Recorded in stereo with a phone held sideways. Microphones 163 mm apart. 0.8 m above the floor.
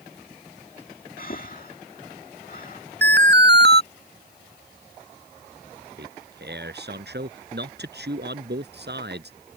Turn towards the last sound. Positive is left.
turn(degrees=-80)